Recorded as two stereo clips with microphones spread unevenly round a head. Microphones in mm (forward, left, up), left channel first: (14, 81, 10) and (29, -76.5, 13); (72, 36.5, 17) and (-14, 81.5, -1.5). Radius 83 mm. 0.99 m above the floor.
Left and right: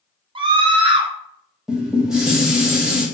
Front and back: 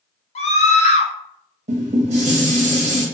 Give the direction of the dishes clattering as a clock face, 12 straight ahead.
6 o'clock.